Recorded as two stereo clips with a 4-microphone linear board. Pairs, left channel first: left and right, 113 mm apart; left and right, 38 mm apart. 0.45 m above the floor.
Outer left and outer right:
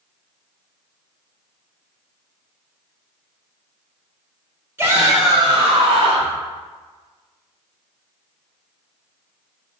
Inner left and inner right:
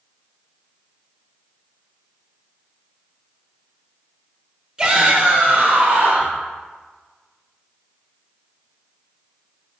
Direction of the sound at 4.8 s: 20° right (ahead or behind).